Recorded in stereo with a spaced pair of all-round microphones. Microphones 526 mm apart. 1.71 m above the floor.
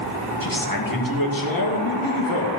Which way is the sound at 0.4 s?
40° left (ahead or behind).